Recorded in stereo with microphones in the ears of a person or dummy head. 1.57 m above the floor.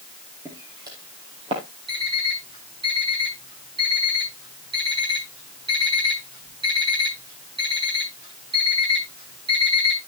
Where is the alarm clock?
35° right (ahead or behind), 8 m.